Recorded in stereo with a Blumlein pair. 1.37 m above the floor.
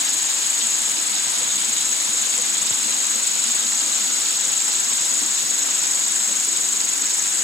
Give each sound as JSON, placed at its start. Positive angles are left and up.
{"t": 0.0, "sound": "an insect", "azimuth_deg": 15}